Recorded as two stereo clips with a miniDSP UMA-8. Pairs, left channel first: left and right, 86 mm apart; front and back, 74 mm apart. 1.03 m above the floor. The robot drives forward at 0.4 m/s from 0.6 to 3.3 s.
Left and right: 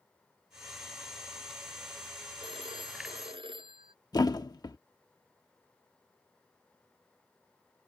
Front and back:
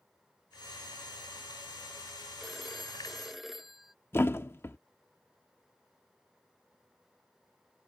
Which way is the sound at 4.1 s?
55° left.